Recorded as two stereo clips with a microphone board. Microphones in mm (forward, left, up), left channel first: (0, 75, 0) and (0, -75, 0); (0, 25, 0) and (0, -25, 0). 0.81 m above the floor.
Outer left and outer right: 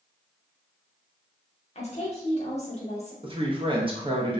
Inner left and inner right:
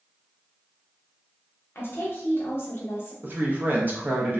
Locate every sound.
1.8 s a woman speaking: 45° left (ahead or behind), 0.9 m
3.2 s a woman speaking: 35° right (ahead or behind), 0.6 m